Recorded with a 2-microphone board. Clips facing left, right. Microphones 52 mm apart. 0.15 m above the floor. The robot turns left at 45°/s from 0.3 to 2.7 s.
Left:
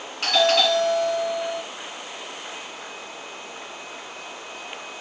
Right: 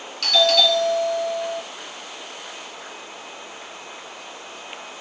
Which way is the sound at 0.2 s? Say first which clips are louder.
Right 1 dB; 135° left.